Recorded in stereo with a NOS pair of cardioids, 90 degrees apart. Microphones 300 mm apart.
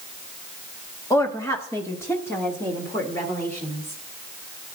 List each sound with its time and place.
1.1 s a woman speaking: 10° left, 1.2 m